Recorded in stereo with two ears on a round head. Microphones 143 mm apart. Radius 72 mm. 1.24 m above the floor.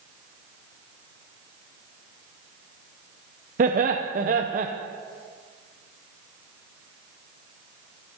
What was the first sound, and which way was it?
Laughter, 50° right (ahead or behind).